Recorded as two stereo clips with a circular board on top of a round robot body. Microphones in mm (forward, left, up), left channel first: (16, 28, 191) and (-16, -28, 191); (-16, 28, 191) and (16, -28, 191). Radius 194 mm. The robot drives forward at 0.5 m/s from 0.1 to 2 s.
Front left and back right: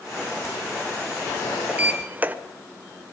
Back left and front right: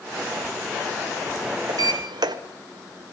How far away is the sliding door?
About 1.6 m.